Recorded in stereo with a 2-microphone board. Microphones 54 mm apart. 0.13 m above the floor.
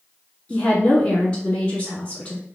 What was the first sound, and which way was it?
A woman speaking, 20° left (ahead or behind).